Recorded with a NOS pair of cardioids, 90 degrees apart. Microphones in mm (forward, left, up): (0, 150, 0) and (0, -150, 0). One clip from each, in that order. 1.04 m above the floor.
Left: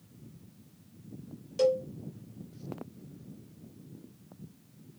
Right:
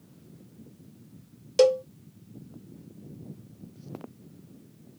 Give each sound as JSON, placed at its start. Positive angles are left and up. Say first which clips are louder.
{"t": 1.6, "sound": "a cowbell", "louder": "right 6 dB", "azimuth_deg": -50, "distance_m": 0.5}